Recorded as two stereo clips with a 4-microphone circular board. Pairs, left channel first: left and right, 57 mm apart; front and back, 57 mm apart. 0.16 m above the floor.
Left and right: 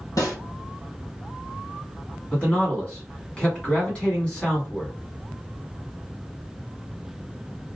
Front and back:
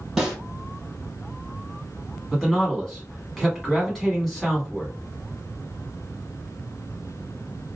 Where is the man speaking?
80° left, 1.2 m.